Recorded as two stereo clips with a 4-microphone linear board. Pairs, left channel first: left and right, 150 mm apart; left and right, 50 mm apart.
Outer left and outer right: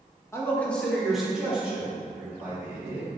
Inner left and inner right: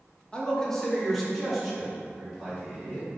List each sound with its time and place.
0.3 s a man speaking: 20° left (ahead or behind), 1.6 m; by 3.1 s 15° right (ahead or behind), 4.5 m